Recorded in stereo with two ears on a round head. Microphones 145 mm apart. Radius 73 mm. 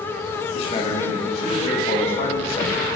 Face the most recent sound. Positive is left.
turn(degrees=40)  # may be behind; listen again after turning